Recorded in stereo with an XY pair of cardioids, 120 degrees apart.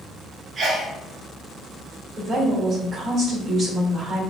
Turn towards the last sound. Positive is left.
turn(degrees=-50)